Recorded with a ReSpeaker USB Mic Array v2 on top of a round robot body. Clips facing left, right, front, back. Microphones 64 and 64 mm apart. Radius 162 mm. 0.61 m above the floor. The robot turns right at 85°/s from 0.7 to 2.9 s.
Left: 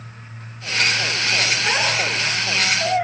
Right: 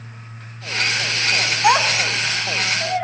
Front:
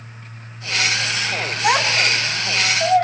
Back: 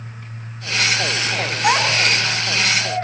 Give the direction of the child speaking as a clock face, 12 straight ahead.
3 o'clock.